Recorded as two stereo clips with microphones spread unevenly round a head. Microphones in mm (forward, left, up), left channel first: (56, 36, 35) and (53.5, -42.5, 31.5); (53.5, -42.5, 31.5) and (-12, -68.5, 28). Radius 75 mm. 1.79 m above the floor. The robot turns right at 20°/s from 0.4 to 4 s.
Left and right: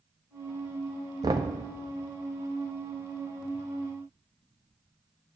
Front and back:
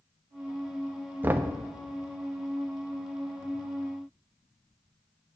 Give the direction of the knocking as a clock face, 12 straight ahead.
4 o'clock.